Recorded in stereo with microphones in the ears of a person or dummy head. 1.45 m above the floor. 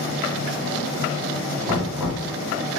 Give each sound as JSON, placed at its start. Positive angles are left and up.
{"t": 1.7, "sound": "knocking", "side_deg": 0, "distance_m": 1.9}